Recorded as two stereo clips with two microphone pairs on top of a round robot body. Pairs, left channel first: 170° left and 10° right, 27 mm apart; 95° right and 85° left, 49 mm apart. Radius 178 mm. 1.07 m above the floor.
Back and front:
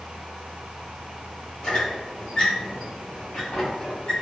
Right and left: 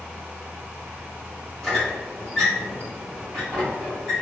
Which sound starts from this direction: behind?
A squeak, at 1.6 s.